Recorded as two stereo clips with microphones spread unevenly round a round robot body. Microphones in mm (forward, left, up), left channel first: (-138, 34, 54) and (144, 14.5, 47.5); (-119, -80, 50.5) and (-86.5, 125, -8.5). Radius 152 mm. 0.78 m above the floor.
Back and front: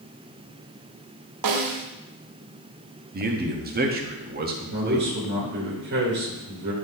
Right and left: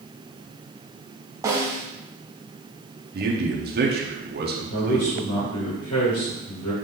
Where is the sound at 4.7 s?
60° right, 1.7 m.